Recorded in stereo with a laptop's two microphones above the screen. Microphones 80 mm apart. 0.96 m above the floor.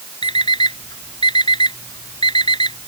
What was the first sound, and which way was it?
An alarm clock, 85° left.